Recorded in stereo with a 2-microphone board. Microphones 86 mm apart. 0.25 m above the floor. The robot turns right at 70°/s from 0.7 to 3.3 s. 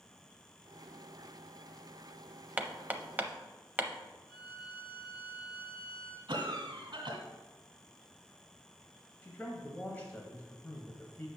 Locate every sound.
2.6 s hammering: 15° right (ahead or behind), 0.5 m; by 3.9 s 20° right (ahead or behind), 0.5 m
4.3 s a violin: 70° left (ahead or behind), 2.5 m
6.3 s a cough: 60° right (ahead or behind), 2.0 m
9.2 s a man speaking: 20° left (ahead or behind), 1.0 m